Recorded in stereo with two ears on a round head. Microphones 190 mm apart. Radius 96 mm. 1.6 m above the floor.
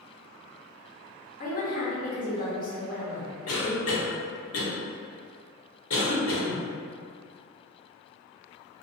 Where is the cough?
75° left (ahead or behind), 0.8 m.